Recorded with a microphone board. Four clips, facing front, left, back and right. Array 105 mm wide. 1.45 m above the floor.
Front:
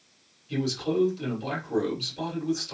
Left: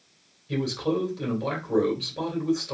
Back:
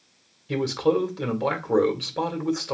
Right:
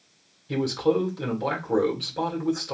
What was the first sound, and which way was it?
A man speaking, 165° right.